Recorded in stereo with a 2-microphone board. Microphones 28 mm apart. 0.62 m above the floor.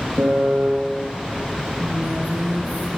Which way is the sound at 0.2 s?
80° right.